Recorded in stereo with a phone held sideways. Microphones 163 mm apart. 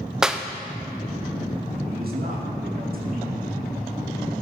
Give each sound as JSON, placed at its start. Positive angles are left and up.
{"t": 0.2, "sound": "a clap", "side_deg": -5, "distance_m": 0.6}
{"t": 1.8, "sound": "a man speaking", "side_deg": -65, "distance_m": 2.5}